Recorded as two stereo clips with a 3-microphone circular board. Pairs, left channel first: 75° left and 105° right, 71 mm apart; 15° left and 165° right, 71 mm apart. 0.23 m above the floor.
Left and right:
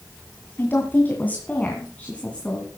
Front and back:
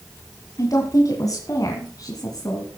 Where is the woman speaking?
25° left, 2.0 m; by 2.7 s straight ahead, 2.5 m.